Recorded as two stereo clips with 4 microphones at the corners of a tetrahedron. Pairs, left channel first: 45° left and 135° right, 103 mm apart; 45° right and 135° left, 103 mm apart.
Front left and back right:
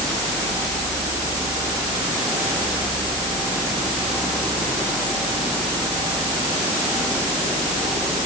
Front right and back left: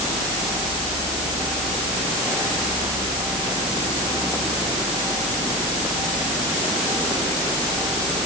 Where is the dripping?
No dripping in this recording.